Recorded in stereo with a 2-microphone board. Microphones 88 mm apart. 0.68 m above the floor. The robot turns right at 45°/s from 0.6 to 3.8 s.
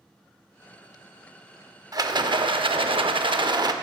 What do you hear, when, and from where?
1.9 s a rattle: 135° right, 0.6 m; by 3.7 s 50° right, 0.6 m